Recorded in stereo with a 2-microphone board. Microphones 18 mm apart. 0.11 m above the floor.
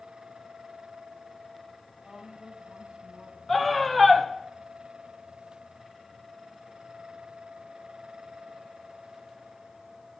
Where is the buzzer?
No buzzer in this recording.